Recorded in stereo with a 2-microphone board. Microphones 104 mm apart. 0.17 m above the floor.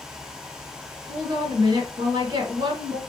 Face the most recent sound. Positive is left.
turn(degrees=-40)  # may be behind; listen again after turning